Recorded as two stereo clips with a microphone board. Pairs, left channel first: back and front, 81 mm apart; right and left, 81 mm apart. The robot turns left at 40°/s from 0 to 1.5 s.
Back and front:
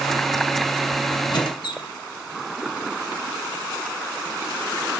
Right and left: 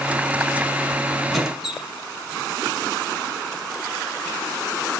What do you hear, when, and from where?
1.3 s a squeak: straight behind, 1.2 m; by 1.9 s 175° left, 1.2 m